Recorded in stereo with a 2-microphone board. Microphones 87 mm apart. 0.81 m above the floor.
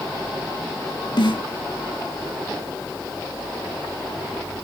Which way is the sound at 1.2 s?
65° left (ahead or behind).